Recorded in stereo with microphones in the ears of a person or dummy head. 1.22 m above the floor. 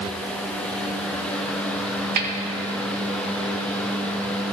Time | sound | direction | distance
2.2 | a snare drum | 50° right (ahead or behind) | 1.0 m